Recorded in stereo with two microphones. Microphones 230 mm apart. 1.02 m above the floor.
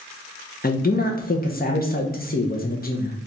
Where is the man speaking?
40° left (ahead or behind), 0.5 m.